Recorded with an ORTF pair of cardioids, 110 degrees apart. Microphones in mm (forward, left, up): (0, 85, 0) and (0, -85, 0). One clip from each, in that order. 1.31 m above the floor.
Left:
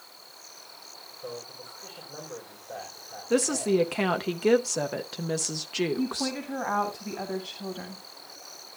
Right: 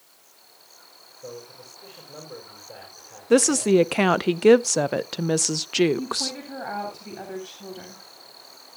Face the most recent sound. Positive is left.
turn(degrees=5)